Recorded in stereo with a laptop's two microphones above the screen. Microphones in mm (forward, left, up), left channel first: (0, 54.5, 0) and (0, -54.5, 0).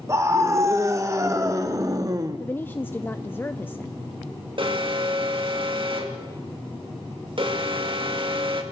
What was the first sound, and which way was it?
A scream, 30° right (ahead or behind).